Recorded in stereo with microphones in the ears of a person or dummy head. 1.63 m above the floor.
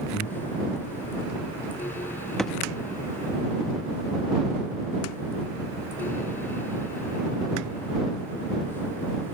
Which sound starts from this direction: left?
Breathing, at 0.1 s.